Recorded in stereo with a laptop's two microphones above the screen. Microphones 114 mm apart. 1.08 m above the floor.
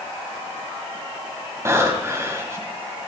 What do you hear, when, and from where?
1.6 s breathing: 25° right (ahead or behind), 2.5 m